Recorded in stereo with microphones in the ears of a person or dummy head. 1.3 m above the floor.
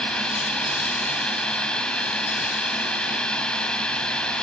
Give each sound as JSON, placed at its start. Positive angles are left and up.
{"t": 0.0, "sound": "a drone", "side_deg": 10}